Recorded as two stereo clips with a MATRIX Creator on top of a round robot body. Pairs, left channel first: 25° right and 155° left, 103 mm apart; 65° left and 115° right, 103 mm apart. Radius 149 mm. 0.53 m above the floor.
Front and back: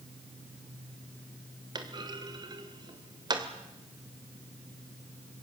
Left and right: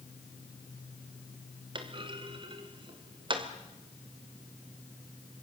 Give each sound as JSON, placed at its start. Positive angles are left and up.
{"t": 1.8, "sound": "a clunk", "azimuth_deg": -155, "distance_m": 2.0}